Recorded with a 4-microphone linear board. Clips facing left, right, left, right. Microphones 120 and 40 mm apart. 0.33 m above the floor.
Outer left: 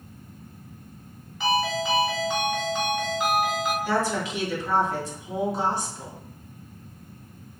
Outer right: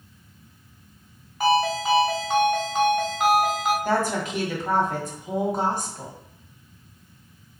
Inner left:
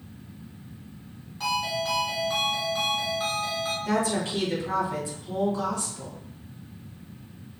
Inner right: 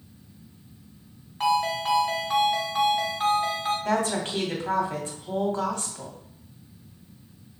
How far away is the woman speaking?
About 1.6 m.